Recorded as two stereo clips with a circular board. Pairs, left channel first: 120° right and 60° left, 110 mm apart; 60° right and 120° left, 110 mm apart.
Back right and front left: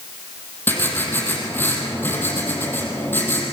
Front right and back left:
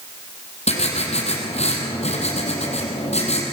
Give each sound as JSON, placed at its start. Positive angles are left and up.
{"t": 0.7, "sound": "writing", "azimuth_deg": -50, "distance_m": 4.0}